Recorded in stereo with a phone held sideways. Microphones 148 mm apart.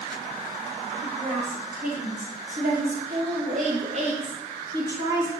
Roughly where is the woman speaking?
Right.